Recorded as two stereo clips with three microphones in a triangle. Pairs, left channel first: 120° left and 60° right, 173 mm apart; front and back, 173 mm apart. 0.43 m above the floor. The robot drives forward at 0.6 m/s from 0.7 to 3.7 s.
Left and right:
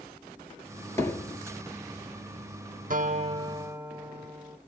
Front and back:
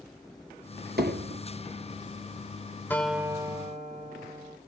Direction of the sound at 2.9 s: 75° right.